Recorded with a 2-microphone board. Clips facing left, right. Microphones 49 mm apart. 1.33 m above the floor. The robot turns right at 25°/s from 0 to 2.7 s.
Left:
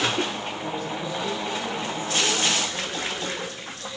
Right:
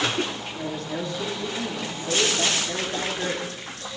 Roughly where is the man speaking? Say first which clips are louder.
Even; behind right.